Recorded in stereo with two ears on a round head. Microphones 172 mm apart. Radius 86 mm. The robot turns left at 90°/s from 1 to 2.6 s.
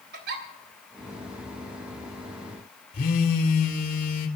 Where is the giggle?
55° right (ahead or behind), 3 m.